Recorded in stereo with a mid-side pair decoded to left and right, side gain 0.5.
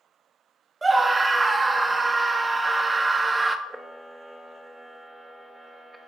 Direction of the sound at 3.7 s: 15° right.